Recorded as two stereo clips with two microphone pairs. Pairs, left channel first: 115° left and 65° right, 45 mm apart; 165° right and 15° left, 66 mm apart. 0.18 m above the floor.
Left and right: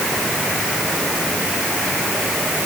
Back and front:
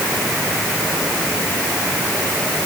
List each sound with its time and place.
Only background noise.